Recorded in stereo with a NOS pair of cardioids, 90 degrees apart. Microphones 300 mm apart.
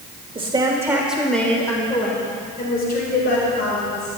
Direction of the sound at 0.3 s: 20° right.